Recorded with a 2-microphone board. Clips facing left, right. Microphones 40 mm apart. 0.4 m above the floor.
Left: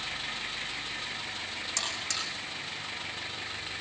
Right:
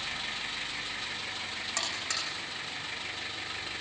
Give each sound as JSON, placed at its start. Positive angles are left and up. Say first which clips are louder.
{"t": 1.8, "sound": "a buzzer", "louder": "even", "side_deg": -30, "distance_m": 10.0}